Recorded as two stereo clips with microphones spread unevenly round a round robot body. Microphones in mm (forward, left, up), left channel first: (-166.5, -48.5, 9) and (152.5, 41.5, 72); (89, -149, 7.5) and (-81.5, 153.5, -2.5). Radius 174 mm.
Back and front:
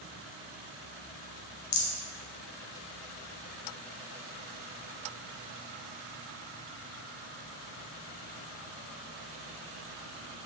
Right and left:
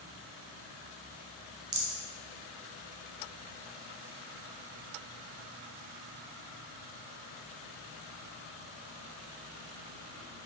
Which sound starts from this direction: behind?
A rattle, at 1.7 s.